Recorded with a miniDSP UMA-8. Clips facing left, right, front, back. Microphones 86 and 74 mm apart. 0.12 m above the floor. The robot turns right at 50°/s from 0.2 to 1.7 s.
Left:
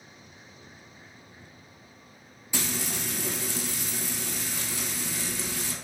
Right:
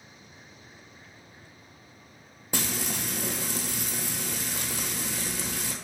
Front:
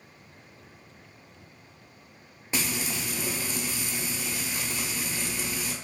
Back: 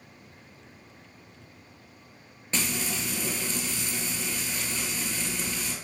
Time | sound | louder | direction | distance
2.5 | frying | right 1 dB, even | 75° right | 0.9 m